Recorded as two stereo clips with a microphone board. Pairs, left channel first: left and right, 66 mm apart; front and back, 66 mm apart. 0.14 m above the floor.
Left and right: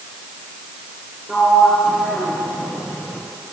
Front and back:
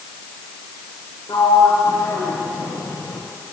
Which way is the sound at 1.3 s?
5° right.